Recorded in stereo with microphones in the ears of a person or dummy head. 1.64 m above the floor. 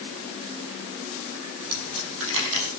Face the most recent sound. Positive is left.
turn(degrees=-75)  # may be behind; listen again after turning